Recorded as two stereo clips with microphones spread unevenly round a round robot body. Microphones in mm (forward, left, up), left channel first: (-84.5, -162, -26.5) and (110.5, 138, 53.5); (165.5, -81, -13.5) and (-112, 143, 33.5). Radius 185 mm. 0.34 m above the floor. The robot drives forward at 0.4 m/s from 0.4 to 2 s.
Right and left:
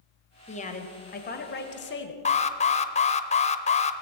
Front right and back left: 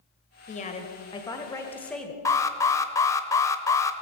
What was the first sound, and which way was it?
A woman speaking, 85° right.